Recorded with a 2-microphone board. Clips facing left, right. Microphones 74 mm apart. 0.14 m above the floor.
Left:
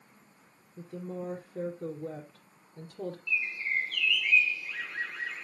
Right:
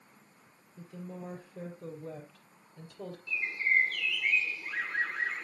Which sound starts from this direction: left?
A woman speaking, at 0.8 s.